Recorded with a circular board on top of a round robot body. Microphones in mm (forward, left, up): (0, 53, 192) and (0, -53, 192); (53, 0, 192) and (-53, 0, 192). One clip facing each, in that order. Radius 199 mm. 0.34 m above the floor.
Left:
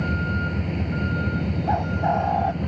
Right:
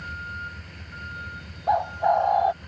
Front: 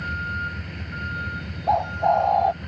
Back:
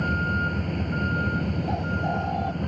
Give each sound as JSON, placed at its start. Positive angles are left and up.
{"t": 0.0, "sound": "a vehicle", "azimuth_deg": 130}
{"t": 1.7, "sound": "a bird", "azimuth_deg": -15}